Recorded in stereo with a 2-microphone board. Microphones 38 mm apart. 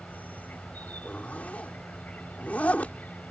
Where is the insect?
40° left (ahead or behind).